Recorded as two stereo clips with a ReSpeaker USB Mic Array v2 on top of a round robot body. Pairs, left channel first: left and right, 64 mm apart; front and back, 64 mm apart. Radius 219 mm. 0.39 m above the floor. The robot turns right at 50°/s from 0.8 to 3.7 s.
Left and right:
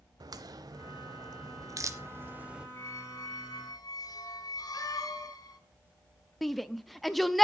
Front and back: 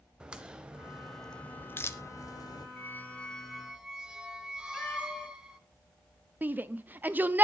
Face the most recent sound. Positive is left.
turn(degrees=180)